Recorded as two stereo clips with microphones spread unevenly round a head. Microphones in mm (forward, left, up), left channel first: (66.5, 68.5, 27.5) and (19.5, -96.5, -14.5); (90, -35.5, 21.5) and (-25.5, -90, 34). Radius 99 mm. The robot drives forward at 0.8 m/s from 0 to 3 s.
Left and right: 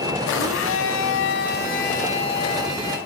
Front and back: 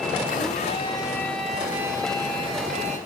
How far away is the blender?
About 1.2 m.